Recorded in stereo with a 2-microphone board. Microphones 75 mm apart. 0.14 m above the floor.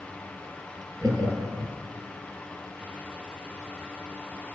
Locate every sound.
1.0 s laughter: 50° right (ahead or behind), 3.5 m